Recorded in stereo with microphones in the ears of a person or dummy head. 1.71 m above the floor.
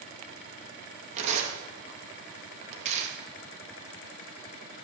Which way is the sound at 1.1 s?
40° right (ahead or behind).